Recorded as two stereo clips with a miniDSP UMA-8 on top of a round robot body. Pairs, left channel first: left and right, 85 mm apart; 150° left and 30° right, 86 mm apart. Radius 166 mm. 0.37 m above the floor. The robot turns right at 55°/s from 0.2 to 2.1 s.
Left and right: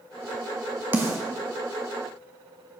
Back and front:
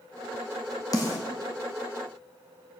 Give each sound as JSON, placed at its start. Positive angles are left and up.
{"t": 0.9, "sound": "a snare drum", "azimuth_deg": -160, "distance_m": 1.2}